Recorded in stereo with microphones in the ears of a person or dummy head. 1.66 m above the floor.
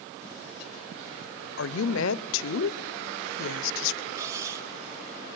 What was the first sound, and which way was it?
A woman speaking, 75° left (ahead or behind).